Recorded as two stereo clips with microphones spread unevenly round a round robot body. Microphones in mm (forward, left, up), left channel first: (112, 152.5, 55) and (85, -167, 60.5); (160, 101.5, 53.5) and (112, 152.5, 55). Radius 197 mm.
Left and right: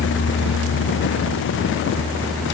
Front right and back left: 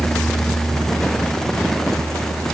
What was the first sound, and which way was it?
Only background noise.